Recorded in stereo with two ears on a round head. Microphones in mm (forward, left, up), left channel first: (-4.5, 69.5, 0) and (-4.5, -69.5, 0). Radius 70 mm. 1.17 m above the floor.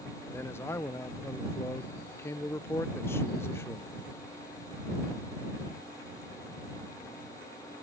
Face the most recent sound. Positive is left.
turn(degrees=15)  # may be behind; listen again after turning